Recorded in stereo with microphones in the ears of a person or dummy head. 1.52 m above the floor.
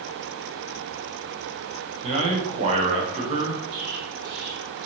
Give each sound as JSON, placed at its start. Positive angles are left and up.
{"t": 2.0, "sound": "a man speaking", "side_deg": -40, "distance_m": 0.7}
{"t": 3.7, "sound": "an explosion", "side_deg": -80, "distance_m": 1.1}